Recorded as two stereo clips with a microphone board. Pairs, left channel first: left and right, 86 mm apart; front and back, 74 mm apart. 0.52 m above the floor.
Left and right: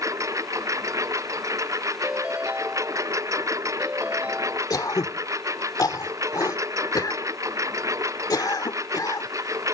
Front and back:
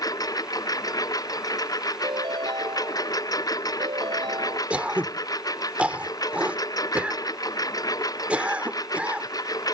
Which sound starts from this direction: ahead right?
A lawn mower, at 0.0 s.